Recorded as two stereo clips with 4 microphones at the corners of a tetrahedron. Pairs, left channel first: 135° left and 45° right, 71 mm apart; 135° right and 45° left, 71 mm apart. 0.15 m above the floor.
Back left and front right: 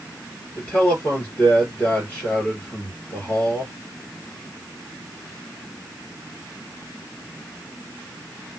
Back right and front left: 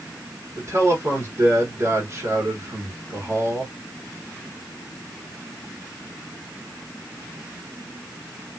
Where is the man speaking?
75° left, 2 m.